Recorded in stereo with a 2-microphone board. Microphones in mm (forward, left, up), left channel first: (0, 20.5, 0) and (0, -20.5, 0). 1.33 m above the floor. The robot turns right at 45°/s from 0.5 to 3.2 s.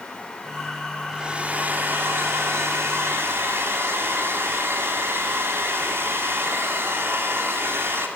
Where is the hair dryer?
165° right, 3 m; by 8.1 s 70° right, 3 m.